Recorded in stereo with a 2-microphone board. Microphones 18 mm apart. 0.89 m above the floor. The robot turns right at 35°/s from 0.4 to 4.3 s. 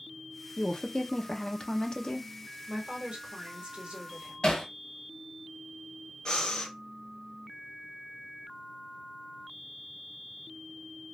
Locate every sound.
0.6 s a woman speaking: 55° left, 0.6 m; by 2.3 s 115° left, 0.6 m
2.7 s a woman speaking: 120° right, 1.3 m; by 4.6 s 60° right, 1.3 m
4.4 s hammering: 65° left (ahead or behind), 1.4 m
6.2 s breathing: 60° left (ahead or behind), 1.2 m